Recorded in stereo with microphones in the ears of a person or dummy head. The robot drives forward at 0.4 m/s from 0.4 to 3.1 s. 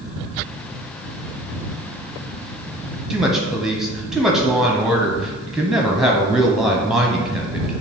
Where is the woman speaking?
5° right (ahead or behind), 0.6 m.